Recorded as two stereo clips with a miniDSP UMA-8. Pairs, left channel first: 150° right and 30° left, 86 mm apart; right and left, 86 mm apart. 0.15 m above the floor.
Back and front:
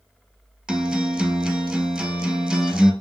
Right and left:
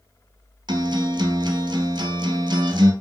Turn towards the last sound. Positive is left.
turn(degrees=115)